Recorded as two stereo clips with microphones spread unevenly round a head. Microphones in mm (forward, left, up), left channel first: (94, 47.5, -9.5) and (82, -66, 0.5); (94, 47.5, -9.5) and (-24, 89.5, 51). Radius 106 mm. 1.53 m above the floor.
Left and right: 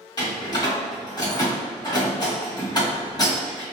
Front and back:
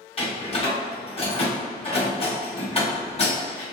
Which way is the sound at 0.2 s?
30° left.